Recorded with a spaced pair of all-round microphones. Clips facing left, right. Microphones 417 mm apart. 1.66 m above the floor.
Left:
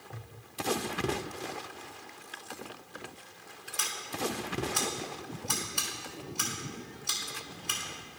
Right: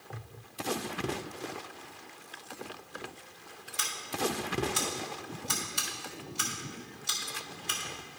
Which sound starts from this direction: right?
Scissors, at 3.8 s.